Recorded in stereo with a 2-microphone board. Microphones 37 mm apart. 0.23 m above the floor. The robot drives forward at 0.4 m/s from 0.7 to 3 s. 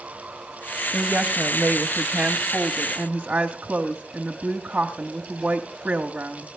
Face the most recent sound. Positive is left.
turn(degrees=-25)  # may be behind; listen again after turning